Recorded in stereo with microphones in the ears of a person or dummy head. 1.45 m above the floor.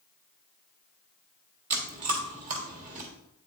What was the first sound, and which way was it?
Chewing, 50° right (ahead or behind).